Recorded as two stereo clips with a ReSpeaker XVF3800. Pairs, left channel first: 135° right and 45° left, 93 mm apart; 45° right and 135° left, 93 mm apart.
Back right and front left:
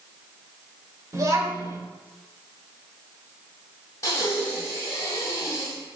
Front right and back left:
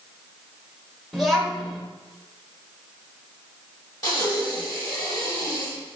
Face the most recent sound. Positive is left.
turn(degrees=-85)